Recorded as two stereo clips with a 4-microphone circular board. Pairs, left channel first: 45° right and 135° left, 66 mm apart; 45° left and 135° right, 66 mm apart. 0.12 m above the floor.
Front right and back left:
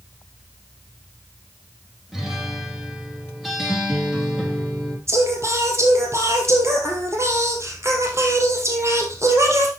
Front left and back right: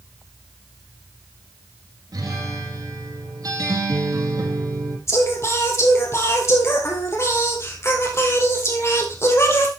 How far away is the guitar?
About 4 m.